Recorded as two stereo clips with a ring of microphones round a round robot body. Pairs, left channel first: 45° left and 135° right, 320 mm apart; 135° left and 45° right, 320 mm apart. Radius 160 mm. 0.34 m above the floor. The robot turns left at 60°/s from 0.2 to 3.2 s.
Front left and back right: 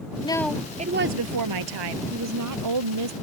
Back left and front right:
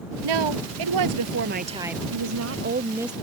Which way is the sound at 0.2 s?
30° right.